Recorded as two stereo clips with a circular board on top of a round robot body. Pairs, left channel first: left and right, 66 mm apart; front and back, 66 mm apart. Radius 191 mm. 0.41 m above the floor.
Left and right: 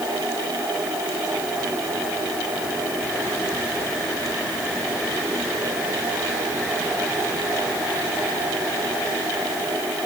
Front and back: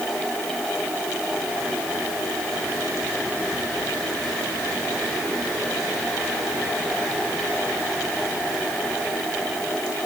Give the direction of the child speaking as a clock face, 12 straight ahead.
I don't hear a child speaking.